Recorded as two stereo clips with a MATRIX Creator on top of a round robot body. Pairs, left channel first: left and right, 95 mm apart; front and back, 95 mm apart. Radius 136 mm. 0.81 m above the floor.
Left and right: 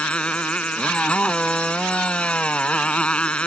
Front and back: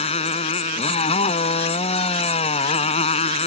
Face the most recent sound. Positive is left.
turn(degrees=10)